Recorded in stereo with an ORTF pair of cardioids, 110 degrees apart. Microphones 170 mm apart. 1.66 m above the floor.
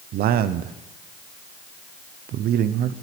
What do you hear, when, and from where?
0.1 s a man speaking: 65° right, 0.8 m